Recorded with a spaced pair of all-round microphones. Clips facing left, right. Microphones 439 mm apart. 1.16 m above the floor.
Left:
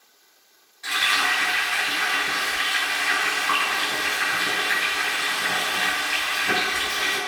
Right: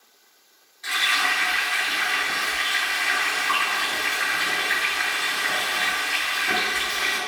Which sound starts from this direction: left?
Frying, at 0.8 s.